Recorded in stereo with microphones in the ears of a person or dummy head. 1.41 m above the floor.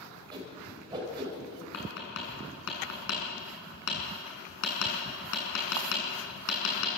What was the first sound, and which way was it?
A whoosh, 25° right (ahead or behind).